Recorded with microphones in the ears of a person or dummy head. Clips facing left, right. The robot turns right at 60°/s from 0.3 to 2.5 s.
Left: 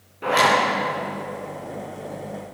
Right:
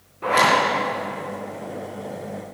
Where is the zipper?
10° left (ahead or behind), 3.5 m; by 0.6 s 5° right (ahead or behind), 3.5 m.